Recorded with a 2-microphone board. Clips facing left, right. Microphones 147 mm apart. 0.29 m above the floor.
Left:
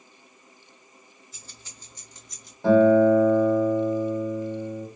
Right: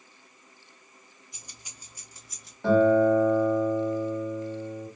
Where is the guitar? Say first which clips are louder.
Left 4 dB; 15° left (ahead or behind), 1.7 m.